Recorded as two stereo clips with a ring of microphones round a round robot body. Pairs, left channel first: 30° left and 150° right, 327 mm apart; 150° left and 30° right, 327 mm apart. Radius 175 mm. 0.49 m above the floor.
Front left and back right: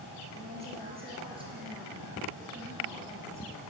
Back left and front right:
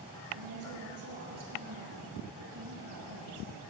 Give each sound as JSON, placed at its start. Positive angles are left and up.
{"t": 0.3, "sound": "a woman speaking", "azimuth_deg": -80, "distance_m": 8.5}